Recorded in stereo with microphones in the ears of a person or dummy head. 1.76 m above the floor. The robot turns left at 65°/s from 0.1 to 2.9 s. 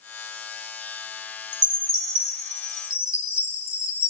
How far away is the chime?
About 2 m.